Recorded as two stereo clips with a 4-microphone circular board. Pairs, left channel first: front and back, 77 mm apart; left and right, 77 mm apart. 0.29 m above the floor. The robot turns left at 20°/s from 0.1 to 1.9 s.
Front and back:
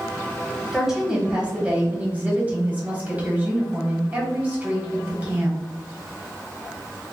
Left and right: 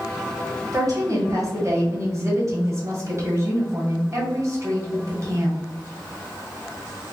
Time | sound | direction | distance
0.7 | a woman speaking | 95° right | 1.7 m